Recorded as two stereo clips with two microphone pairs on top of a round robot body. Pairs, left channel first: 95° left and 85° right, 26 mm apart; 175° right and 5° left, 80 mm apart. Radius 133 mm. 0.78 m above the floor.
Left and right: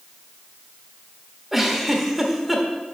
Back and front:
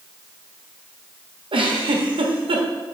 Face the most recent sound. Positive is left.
turn(degrees=-5)